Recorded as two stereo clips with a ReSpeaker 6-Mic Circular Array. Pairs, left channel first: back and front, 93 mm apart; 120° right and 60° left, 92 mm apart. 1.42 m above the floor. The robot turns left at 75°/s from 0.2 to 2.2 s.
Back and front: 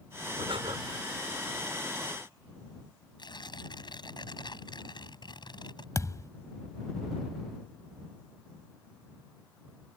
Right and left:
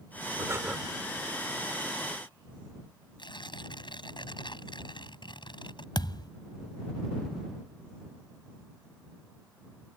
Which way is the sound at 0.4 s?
10° left.